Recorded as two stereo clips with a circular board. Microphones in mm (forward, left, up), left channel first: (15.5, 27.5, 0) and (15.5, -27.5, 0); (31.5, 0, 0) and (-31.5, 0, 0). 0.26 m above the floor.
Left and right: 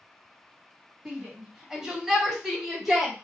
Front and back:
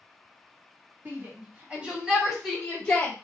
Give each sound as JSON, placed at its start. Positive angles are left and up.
{"t": 1.1, "sound": "a shout", "azimuth_deg": -160, "distance_m": 1.7}